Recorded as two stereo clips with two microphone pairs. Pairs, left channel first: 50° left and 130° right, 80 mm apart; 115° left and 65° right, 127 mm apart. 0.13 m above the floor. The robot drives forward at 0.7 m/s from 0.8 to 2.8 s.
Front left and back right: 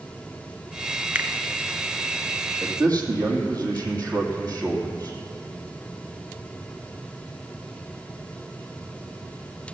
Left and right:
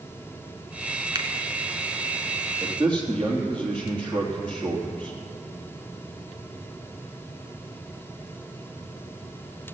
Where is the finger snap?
75° right, 1.0 m; by 1.3 s 85° right, 1.0 m.